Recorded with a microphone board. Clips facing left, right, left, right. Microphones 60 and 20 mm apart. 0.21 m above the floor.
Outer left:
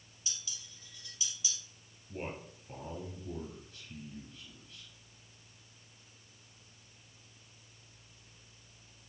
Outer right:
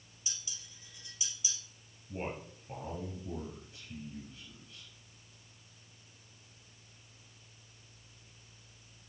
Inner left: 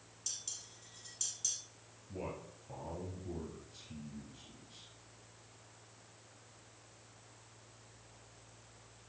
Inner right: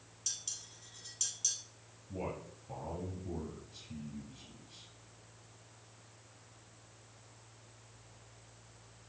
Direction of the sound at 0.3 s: 25° right (ahead or behind).